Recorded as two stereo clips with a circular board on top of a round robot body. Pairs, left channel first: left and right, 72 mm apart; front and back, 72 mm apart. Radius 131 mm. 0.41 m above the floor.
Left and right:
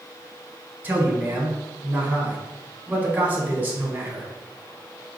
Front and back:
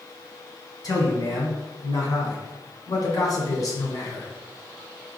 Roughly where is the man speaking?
Ahead right.